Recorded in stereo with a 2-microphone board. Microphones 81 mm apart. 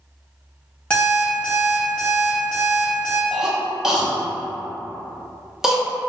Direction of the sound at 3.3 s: 5° right (ahead or behind).